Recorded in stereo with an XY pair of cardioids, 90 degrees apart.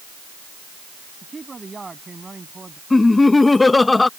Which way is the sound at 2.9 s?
25° left.